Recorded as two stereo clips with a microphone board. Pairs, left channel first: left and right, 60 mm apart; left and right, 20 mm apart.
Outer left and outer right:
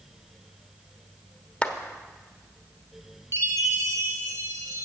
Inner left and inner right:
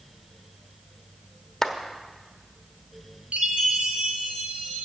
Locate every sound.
1.6 s a clap: 15° left (ahead or behind), 1.1 m
3.3 s a chime: 55° right (ahead or behind), 2.5 m